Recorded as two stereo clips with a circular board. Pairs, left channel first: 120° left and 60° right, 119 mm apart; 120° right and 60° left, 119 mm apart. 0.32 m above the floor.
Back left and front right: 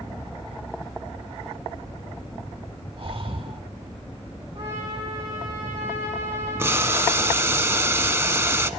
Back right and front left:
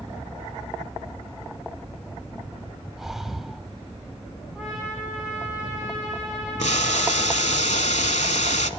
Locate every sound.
3.0 s breathing: 25° right, 0.6 m
4.5 s a trumpet: 20° right, 9.5 m
6.6 s boiling: 130° right, 0.6 m